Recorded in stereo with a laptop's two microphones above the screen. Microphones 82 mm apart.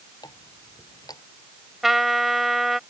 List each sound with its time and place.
0.2 s a running tap: 55° left (ahead or behind)
1.8 s a trumpet: centre (ahead or behind)